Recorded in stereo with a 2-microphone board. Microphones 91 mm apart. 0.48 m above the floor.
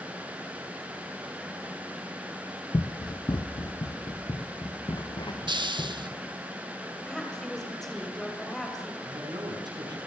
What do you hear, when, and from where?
2.7 s running footsteps: 55° left (ahead or behind), 0.7 m; by 6.5 s 50° left (ahead or behind), 2.5 m
5.5 s a hiss: 60° right (ahead or behind), 0.6 m
7.0 s a woman speaking: 5° left (ahead or behind), 3 m
9.0 s a man speaking: 50° right (ahead or behind), 5.5 m